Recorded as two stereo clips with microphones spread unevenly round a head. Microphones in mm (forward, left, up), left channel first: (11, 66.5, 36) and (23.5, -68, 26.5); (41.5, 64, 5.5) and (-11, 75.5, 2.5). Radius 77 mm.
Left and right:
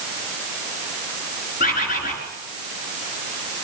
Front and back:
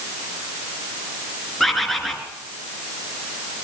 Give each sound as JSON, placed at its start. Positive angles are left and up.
{"t": 1.6, "sound": "a bird", "azimuth_deg": 75, "distance_m": 4.0}